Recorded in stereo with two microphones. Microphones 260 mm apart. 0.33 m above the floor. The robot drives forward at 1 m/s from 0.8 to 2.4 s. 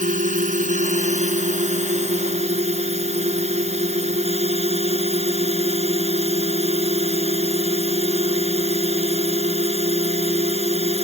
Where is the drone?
30° right (ahead or behind); by 11.0 s 25° right (ahead or behind).